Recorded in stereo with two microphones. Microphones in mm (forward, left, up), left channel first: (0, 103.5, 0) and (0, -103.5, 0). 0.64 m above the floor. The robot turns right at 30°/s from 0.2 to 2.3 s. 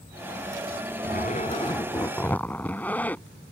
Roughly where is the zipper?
Behind left.